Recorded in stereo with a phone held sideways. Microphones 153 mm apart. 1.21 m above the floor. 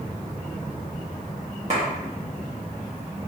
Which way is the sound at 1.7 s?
50° right (ahead or behind).